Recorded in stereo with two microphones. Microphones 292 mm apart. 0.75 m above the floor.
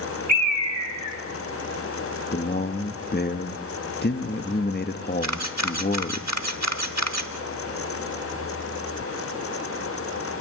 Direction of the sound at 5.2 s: 65° right (ahead or behind).